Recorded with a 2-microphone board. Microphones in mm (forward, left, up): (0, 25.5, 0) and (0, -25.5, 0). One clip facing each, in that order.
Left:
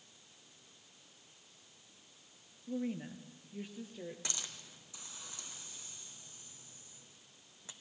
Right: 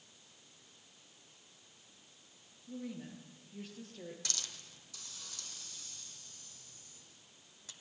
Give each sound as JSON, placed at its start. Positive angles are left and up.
{"t": 2.7, "sound": "a woman speaking", "side_deg": 40, "distance_m": 1.5}
{"t": 4.2, "sound": "a hiss", "side_deg": 20, "distance_m": 1.1}